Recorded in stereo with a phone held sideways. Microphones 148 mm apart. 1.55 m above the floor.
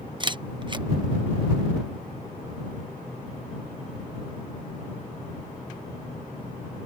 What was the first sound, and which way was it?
A camera shutter, 30° right (ahead or behind).